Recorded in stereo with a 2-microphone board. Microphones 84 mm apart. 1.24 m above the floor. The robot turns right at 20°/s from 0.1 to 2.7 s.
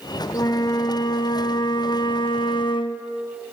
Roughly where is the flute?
Ahead left.